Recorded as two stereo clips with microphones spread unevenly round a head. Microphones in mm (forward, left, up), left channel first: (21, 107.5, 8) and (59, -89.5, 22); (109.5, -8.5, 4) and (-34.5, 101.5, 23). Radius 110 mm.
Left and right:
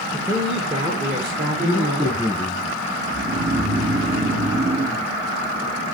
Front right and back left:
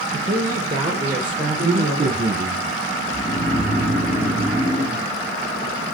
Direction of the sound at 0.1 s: 165° right.